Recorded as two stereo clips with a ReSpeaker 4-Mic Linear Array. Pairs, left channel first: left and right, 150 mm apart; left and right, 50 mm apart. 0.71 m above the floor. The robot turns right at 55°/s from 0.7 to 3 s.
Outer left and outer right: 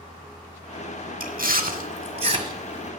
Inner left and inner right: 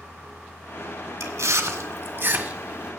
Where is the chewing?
70° right (ahead or behind), 1.6 m; by 2.9 s 5° right (ahead or behind), 1.6 m.